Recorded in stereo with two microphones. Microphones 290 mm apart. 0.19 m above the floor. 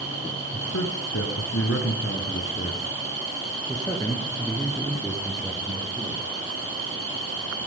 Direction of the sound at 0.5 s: 60° left (ahead or behind).